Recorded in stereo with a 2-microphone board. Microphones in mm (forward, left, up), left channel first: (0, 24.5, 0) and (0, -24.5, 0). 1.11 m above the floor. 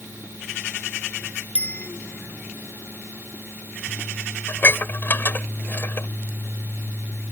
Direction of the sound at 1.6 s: 30° left (ahead or behind).